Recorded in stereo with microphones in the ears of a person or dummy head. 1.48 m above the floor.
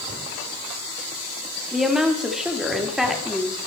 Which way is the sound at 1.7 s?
Centre (ahead or behind).